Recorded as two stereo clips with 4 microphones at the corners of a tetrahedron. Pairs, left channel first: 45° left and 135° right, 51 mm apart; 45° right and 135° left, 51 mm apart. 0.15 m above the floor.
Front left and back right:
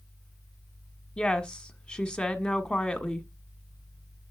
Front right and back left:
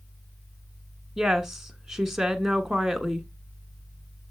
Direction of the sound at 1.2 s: 70° left.